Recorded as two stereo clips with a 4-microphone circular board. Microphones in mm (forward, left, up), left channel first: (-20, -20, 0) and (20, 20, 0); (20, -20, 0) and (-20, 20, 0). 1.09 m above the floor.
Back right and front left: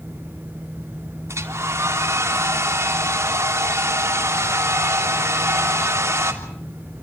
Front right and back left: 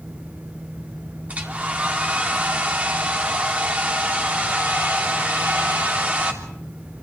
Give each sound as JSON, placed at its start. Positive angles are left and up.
{"t": 1.3, "sound": "a hair dryer", "azimuth_deg": 75, "distance_m": 3.0}